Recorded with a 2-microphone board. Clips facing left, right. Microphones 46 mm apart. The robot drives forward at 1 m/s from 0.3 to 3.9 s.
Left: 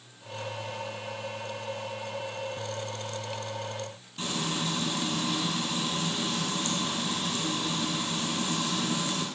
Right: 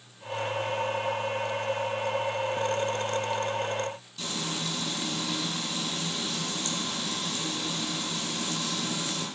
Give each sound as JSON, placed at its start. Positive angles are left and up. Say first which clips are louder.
{"t": 4.2, "sound": "frying", "louder": "left 3 dB", "side_deg": 30, "distance_m": 4.0}